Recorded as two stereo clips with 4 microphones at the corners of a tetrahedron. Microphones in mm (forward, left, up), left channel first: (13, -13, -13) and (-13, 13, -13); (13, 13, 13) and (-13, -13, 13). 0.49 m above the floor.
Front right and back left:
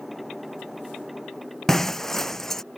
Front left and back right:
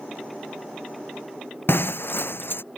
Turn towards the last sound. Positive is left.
turn(degrees=35)